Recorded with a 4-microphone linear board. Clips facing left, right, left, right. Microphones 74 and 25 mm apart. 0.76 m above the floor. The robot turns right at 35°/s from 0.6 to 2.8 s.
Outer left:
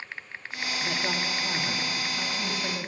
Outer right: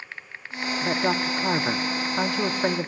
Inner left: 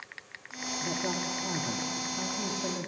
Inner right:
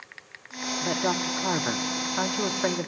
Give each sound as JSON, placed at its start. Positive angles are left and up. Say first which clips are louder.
{"t": 0.8, "sound": "a woman speaking", "louder": "outer right 7 dB, inner right 6 dB", "azimuth_deg": -140, "distance_m": 1.0}